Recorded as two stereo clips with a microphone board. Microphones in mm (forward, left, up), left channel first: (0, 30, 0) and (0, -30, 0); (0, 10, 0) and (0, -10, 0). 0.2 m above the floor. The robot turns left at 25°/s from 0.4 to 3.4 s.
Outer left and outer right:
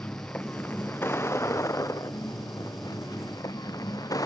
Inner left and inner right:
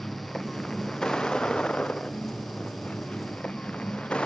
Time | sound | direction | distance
0.0 | a vehicle | 155° left | ?